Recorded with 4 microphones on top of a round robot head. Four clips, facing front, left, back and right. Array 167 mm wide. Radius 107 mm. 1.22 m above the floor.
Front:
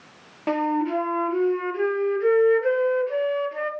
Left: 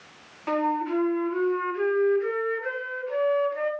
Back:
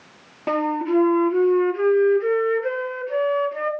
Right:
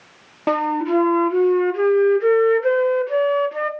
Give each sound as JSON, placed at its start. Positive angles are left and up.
{"t": 0.5, "sound": "a flute", "azimuth_deg": -85, "distance_m": 1.8}